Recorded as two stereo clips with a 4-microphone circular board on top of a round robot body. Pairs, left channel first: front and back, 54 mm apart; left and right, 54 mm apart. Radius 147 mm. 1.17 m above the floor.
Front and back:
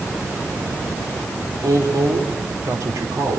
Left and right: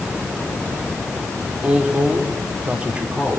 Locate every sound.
1.6 s a woman speaking: 160° right, 3.5 m; by 3.4 s 155° right, 4.5 m